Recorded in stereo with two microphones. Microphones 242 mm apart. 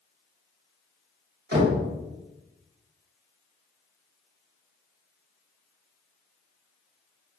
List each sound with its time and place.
1.5 s knocking: 45° right (ahead or behind), 1.2 m